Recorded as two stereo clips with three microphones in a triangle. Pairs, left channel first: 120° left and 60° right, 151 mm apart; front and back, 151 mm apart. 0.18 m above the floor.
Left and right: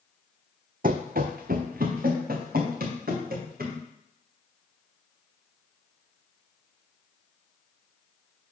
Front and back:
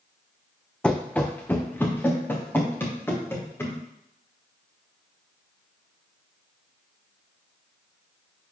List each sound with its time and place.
0.8 s running footsteps: 85° right, 0.6 m; by 3.8 s 75° right, 3 m